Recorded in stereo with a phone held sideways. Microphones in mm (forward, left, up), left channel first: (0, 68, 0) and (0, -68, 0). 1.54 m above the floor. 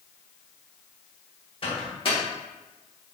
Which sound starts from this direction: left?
A microwave, at 1.6 s.